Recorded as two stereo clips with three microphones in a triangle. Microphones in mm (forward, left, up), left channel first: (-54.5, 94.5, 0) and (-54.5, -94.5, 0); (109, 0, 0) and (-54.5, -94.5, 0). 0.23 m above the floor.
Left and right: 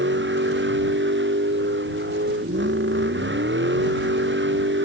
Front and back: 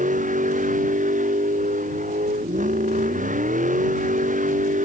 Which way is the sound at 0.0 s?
105° right.